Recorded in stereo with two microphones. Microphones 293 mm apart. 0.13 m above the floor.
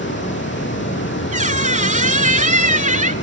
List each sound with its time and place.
0.0 s running water: 35° left (ahead or behind), 4 m
1.3 s a squeak: 25° right (ahead or behind), 1.0 m